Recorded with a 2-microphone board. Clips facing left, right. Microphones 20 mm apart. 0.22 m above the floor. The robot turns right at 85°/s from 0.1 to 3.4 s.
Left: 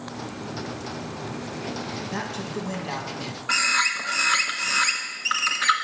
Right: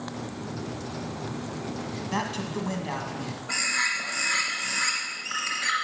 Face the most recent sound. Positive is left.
turn(degrees=60)  # may be behind; listen again after turning